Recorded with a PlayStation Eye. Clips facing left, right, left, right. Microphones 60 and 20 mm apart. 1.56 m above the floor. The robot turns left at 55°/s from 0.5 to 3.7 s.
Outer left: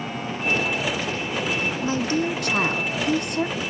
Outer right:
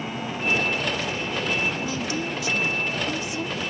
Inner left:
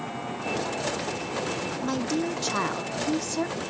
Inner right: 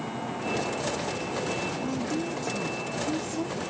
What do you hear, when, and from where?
1.8 s a woman speaking: 150° left, 0.7 m; by 3.6 s 50° left, 0.7 m